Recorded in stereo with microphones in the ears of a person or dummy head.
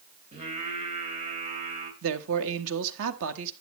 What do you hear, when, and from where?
0.3 s singing: 35° right (ahead or behind), 3 m
2.0 s a man speaking: 70° right (ahead or behind), 1.4 m